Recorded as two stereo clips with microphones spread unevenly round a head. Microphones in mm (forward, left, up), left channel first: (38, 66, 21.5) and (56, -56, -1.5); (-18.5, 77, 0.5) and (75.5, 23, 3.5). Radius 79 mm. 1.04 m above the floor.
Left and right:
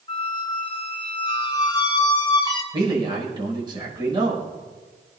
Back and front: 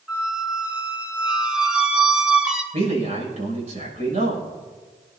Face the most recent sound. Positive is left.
turn(degrees=-30)